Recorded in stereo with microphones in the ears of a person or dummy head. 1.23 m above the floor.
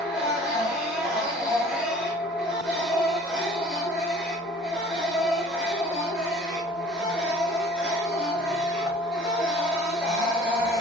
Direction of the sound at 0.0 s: 5° right (ahead or behind).